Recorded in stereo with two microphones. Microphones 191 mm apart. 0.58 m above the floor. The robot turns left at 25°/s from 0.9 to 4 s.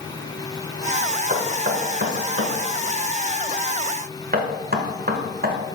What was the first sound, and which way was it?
Knocking, 55° right (ahead or behind).